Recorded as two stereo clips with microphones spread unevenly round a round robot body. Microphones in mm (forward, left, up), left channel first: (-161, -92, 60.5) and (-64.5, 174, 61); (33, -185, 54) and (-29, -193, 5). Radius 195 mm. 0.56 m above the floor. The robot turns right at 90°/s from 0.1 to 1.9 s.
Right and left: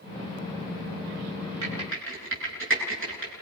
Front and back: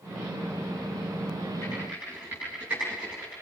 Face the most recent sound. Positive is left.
turn(degrees=115)